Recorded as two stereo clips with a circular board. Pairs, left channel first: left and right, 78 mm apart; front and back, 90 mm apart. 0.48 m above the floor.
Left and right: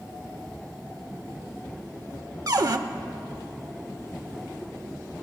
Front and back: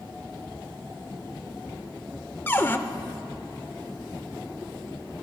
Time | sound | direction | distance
2.5 | a cupboard door | 65° right | 0.5 m